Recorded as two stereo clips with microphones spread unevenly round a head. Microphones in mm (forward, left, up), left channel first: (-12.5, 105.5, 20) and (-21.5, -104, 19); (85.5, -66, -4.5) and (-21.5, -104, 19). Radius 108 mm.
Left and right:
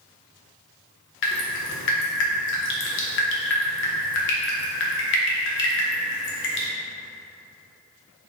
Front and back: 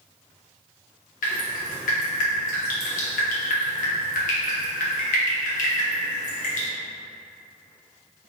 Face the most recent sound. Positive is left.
turn(degrees=50)